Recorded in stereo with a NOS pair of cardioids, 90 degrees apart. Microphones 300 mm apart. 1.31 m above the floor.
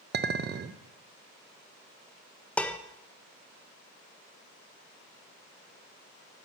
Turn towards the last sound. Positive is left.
turn(degrees=5)